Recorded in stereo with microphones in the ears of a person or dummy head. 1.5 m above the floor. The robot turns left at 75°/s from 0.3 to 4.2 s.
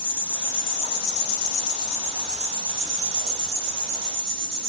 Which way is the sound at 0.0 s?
145° left.